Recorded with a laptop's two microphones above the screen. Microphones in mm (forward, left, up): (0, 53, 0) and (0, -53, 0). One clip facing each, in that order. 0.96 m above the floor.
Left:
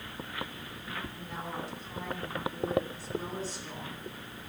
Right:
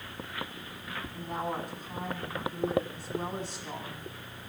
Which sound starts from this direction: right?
A woman speaking, at 1.1 s.